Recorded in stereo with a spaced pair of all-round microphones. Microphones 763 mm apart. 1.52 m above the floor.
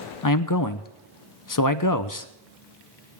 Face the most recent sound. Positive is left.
turn(degrees=30)  # may be behind; listen again after turning